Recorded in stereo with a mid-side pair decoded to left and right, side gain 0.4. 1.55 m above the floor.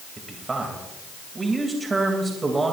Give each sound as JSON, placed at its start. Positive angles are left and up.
{"t": 0.2, "sound": "a man speaking", "azimuth_deg": -30, "distance_m": 3.0}